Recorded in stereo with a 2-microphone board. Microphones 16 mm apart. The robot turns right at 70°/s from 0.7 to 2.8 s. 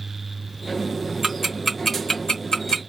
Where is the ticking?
35° right (ahead or behind), 1.2 m; by 2.8 s 65° left (ahead or behind), 1.2 m.